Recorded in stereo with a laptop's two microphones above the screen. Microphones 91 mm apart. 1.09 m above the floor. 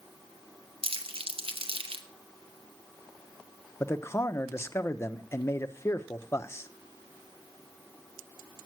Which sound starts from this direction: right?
Crumpling, at 0.8 s.